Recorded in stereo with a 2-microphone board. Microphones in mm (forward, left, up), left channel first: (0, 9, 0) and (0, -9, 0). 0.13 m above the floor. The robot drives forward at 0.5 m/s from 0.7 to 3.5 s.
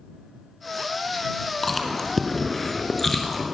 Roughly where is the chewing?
Centre.